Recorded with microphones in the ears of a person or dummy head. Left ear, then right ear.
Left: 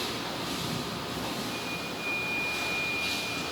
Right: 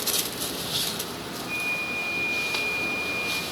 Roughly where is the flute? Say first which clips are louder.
Right 6 dB; right.